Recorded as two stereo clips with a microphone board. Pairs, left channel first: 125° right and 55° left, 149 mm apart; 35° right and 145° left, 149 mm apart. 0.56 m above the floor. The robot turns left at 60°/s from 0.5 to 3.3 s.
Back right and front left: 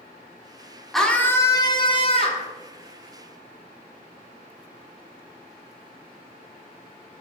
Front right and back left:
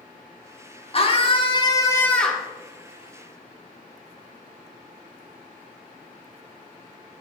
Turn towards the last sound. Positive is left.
turn(degrees=180)